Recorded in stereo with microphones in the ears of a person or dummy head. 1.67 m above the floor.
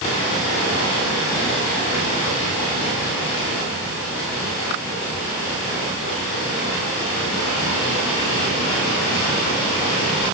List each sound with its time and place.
Only background noise.